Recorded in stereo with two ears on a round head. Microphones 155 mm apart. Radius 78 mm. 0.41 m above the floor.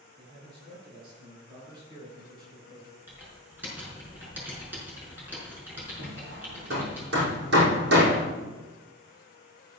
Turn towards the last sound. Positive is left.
turn(degrees=-70)  # may be behind; listen again after turning